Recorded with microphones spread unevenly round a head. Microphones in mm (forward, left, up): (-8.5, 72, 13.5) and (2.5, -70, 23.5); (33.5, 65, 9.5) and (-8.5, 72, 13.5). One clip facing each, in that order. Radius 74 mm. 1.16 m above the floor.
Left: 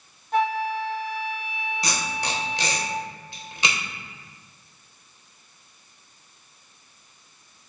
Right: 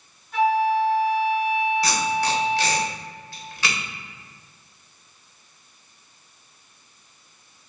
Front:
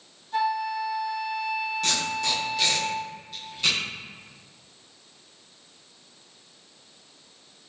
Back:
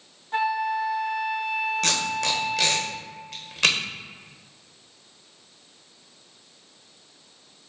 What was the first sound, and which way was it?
A flute, 140° left.